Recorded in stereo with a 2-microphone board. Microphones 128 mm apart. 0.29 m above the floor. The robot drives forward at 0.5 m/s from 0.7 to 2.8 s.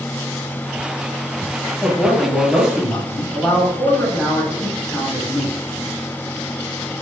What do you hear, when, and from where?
1.8 s a man speaking: centre (ahead or behind), 1.3 m